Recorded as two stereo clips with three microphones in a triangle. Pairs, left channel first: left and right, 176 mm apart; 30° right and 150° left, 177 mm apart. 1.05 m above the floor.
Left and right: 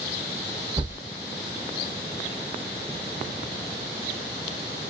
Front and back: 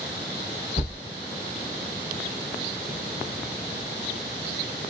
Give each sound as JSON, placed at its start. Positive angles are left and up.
{"t": 0.8, "sound": "a thud", "azimuth_deg": -30, "distance_m": 0.9}